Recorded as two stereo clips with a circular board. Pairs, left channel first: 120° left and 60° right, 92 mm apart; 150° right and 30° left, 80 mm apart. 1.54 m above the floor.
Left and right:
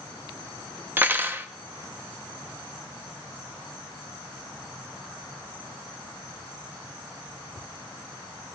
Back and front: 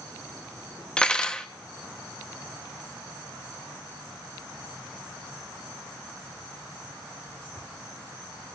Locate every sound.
1.0 s cutlery clinking: 90° right, 0.6 m